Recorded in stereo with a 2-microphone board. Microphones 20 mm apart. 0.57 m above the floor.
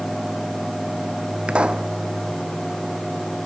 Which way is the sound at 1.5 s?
60° right (ahead or behind).